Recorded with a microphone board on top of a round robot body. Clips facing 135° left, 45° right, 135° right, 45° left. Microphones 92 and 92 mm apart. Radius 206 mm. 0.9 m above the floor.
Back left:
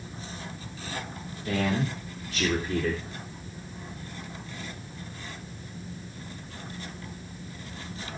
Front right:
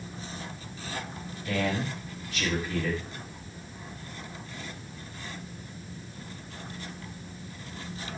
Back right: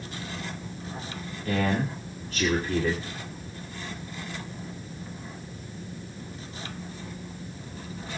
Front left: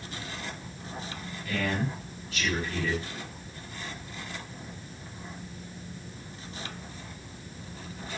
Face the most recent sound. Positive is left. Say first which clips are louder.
# back left 2 dB, back right 4 dB
turn(degrees=180)